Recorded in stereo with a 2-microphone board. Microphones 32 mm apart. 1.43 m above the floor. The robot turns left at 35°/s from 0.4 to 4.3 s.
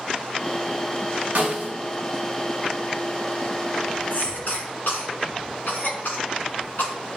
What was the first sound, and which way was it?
A snare drum, 75° right (ahead or behind).